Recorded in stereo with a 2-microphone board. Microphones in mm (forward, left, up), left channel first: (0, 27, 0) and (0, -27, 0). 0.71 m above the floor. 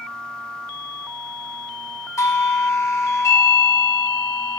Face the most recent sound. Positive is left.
turn(degrees=65)  # may be behind; listen again after turning